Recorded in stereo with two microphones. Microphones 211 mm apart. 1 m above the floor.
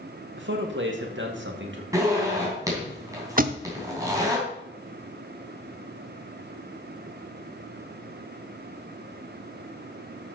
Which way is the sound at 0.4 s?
65° right (ahead or behind).